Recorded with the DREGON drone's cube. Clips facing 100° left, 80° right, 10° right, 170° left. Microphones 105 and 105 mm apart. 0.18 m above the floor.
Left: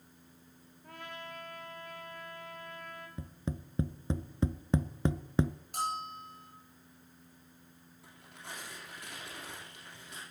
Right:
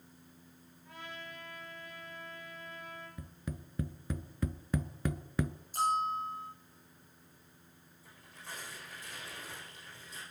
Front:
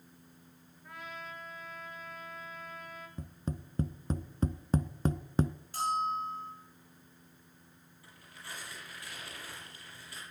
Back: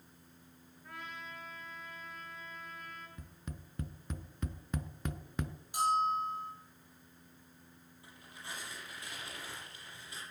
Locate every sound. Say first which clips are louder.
0.8 s a trumpet: left 2 dB, front 2 dB; 75° left, 3 m
3.2 s tapping: left 7 dB, front 9 dB; 40° left, 0.6 m
5.7 s a bell: right 6 dB, back 2 dB; 95° left, 9 m
8.0 s tearing paper: left 1 dB, back 1 dB; 100° left, 7 m